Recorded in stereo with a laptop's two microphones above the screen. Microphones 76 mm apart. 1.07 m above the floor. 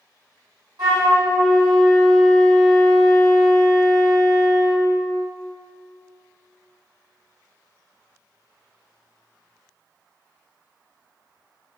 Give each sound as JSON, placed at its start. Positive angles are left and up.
{"t": 0.8, "sound": "a flute", "side_deg": -60, "distance_m": 1.5}